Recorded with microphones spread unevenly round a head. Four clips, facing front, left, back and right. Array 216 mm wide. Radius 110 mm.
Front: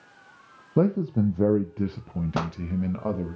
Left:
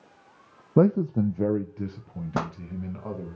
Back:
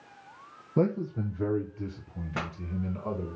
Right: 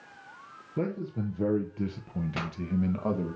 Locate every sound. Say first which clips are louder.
0.8 s a man speaking: left 11 dB, front 5 dB; 70° left, 0.6 m; by 3.3 s 45° right, 1.8 m
2.3 s a pop: left 6 dB, front 5 dB; 40° left, 0.8 m